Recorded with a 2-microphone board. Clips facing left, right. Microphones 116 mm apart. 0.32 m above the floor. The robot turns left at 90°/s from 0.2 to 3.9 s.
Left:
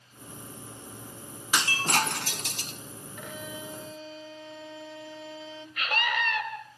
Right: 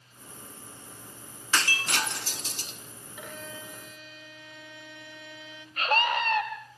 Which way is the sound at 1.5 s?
165° left.